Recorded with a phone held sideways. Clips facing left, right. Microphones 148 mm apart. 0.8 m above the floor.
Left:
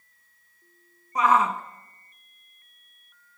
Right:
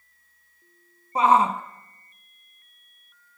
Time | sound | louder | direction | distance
1.1 | a shout | right 2 dB | 30° right (ahead or behind) | 1.0 m